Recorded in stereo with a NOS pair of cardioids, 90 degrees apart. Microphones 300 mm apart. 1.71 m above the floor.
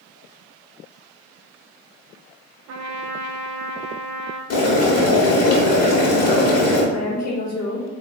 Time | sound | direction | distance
2.7 | a trumpet | 65° right | 0.5 m
4.5 | boiling | 60° left | 1.2 m
6.9 | a woman speaking | 65° left | 1.1 m